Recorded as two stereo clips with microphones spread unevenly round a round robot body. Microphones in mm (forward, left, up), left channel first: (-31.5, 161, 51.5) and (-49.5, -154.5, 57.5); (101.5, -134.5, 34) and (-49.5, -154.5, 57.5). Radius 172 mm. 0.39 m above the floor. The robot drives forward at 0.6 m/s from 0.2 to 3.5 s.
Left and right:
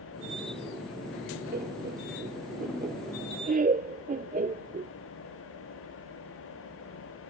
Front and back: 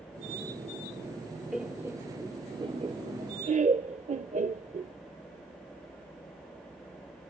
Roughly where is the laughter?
Right.